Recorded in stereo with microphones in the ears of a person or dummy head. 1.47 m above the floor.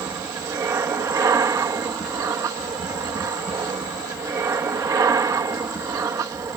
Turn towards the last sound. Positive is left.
turn(degrees=-20)  # may be behind; listen again after turning